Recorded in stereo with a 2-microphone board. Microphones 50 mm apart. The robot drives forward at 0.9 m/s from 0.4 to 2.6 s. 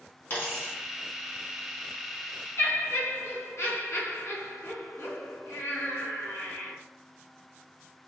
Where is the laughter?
65° left (ahead or behind), 1.9 m.